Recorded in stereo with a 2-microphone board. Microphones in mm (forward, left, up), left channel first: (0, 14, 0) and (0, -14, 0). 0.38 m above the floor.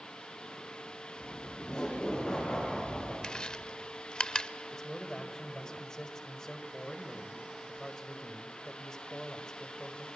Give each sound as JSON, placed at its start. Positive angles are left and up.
{"t": 1.2, "sound": "laughter", "side_deg": 30, "distance_m": 6.5}
{"t": 3.2, "sound": "chewing", "side_deg": 30, "distance_m": 0.6}
{"t": 4.7, "sound": "a man speaking", "side_deg": 20, "distance_m": 1.9}